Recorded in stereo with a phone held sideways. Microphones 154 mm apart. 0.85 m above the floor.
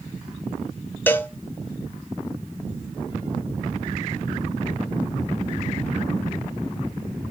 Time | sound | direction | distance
1.1 | a cowbell | 15° left (ahead or behind) | 0.9 m